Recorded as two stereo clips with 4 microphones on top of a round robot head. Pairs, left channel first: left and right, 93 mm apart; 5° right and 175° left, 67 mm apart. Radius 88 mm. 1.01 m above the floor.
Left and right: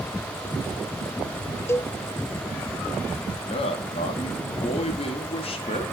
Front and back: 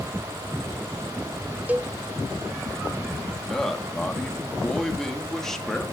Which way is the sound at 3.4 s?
80° left.